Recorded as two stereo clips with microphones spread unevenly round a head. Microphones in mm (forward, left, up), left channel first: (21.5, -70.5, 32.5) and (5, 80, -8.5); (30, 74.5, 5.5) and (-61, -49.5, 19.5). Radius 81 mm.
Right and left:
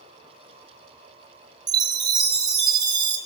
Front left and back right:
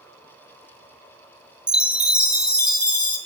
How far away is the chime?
About 1.4 m.